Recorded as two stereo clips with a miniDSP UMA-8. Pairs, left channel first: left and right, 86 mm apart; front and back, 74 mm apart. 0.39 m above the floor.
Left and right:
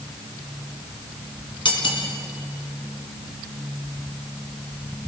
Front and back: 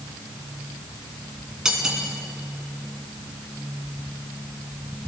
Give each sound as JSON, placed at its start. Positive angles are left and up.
{"t": 1.6, "sound": "cutlery clinking", "azimuth_deg": 100, "distance_m": 1.9}